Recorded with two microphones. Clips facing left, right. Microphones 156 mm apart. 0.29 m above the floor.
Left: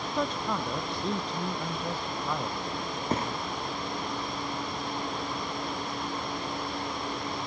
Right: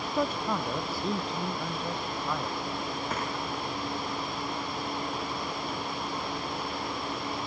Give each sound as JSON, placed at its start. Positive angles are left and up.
{"t": 0.2, "sound": "a man speaking", "side_deg": -10}
{"t": 3.1, "sound": "a thud", "side_deg": 30}